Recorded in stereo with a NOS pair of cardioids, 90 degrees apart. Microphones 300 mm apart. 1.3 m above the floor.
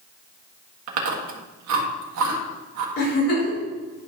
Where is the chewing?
65° right, 1.7 m.